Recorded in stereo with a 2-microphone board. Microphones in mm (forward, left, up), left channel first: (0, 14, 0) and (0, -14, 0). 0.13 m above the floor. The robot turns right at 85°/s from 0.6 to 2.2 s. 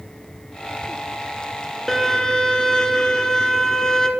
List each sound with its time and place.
1.9 s a violin: 5° left (ahead or behind), 1.6 m; by 4.1 s 20° left (ahead or behind), 1.6 m